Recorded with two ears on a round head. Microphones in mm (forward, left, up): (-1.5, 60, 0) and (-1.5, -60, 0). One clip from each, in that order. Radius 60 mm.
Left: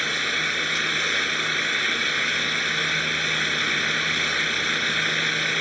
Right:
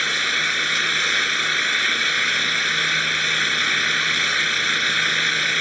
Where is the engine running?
30° right (ahead or behind).